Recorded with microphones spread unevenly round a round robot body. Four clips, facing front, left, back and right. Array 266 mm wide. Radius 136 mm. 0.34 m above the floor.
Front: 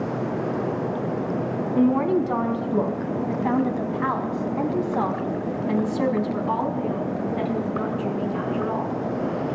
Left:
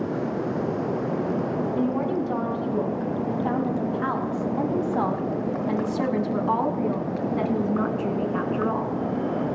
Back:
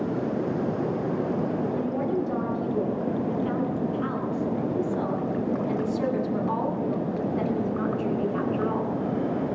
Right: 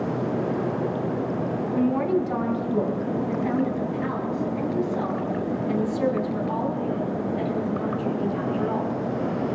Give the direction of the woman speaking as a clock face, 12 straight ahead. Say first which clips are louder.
Right 5 dB, front 7 dB; 12 o'clock.